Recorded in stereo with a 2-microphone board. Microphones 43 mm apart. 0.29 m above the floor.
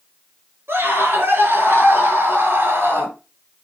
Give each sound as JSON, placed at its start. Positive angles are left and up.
{"t": 0.7, "sound": "a scream", "side_deg": -75, "distance_m": 6.0}